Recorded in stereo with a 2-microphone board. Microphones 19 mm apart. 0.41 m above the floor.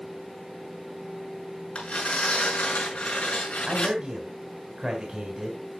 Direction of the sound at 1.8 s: 70° left (ahead or behind).